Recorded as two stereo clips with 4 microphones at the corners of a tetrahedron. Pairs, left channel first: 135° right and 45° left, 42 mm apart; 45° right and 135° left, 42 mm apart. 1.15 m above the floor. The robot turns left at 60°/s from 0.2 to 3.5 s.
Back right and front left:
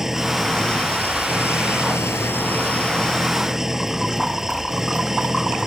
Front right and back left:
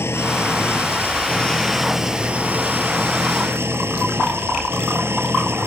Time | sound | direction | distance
0.0 | an engine running | 35° right | ?